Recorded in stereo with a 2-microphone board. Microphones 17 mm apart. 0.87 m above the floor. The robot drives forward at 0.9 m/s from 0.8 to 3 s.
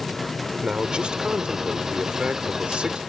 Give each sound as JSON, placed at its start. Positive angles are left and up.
{"t": 0.6, "sound": "a man speaking", "side_deg": -65}